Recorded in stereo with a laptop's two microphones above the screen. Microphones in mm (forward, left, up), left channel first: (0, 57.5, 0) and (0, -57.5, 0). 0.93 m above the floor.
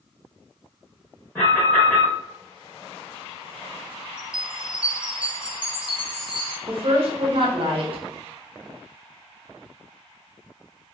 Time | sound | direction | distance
1.4 | an alarm | 15° left (ahead or behind) | 1.4 m
4.2 | a chime | 45° right (ahead or behind) | 0.8 m
6.7 | a woman speaking | 55° right (ahead or behind) | 0.8 m